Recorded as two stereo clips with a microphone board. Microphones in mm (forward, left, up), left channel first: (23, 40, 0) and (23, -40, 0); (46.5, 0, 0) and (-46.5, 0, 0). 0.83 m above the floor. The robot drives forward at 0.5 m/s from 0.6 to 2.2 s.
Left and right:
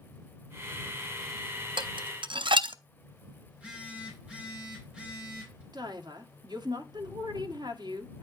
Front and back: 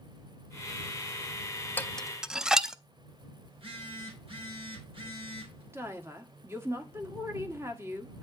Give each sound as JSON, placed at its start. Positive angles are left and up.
{"t": 1.8, "sound": "dishes clattering", "azimuth_deg": -70, "distance_m": 0.5}
{"t": 3.5, "sound": "a phone buzzing", "azimuth_deg": -165, "distance_m": 3.0}
{"t": 5.7, "sound": "a woman speaking", "azimuth_deg": -120, "distance_m": 1.6}